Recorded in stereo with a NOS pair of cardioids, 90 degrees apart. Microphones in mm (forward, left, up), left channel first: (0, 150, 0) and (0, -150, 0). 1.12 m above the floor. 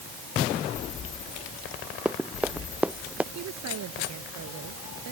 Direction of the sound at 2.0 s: 5° right.